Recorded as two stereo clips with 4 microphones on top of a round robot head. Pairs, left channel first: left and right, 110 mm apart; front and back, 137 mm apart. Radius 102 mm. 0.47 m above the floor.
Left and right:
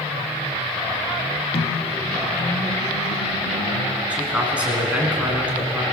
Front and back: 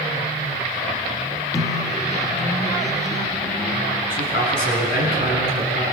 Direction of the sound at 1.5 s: 65° left.